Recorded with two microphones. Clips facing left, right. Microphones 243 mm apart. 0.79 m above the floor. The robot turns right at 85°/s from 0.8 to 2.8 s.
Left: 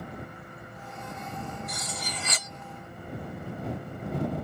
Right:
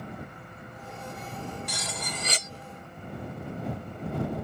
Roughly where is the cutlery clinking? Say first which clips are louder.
Right 1 dB; right.